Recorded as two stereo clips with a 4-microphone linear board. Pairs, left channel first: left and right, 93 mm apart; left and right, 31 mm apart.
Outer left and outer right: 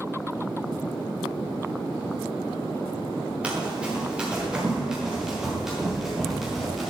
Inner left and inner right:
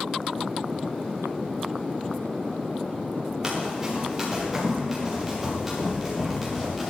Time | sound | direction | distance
3.4 | running footsteps | 15° right (ahead or behind) | 6 m